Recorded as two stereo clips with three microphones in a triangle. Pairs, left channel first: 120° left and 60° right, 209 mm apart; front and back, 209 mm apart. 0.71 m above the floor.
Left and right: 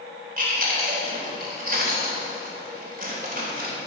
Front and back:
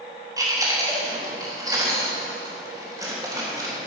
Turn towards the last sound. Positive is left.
turn(degrees=-110)